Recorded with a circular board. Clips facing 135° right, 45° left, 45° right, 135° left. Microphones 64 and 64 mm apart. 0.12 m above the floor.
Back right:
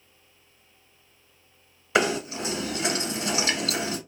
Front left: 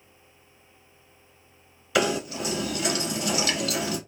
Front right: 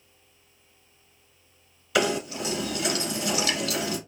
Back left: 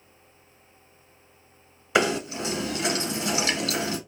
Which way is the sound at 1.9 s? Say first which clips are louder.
Back right 1 dB, back left 1 dB; 175° right.